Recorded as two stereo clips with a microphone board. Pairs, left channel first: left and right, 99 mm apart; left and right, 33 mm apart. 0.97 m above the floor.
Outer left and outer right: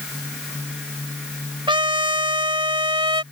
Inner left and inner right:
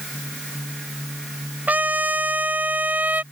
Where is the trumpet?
55° right (ahead or behind).